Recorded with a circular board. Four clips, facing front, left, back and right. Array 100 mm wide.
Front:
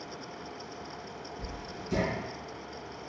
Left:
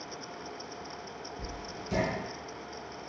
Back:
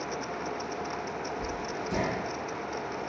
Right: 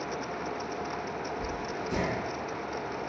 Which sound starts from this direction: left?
Writing, at 1.4 s.